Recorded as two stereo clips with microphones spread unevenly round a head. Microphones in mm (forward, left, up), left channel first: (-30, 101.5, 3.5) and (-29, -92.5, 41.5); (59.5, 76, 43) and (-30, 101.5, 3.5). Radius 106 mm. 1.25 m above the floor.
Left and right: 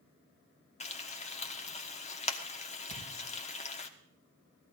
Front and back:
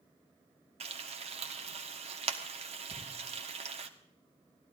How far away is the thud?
About 5 m.